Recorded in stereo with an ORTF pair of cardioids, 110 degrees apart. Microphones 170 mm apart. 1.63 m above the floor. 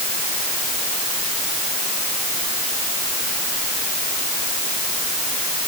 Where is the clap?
No clap in this recording.